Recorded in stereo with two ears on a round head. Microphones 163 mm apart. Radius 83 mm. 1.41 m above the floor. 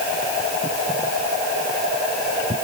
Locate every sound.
Only background noise.